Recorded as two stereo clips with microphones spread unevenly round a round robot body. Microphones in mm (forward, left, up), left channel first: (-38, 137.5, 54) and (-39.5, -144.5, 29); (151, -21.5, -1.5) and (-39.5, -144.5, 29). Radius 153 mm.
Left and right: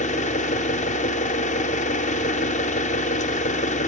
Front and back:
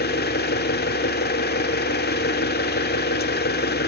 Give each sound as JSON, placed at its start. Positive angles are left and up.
{"t": 0.0, "sound": "an engine running", "azimuth_deg": 25, "distance_m": 0.7}